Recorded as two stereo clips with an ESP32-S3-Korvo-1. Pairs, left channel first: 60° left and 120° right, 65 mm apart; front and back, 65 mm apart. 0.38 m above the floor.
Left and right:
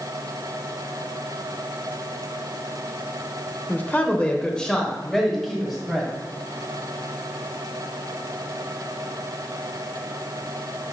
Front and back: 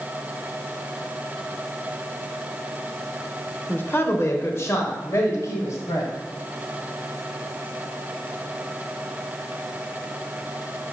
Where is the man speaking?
25° left, 1.0 m; by 6.1 s 35° right, 1.7 m.